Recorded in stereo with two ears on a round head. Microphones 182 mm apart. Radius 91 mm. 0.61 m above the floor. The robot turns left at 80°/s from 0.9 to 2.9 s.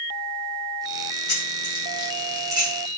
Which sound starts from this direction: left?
Keys jangling, at 1.3 s.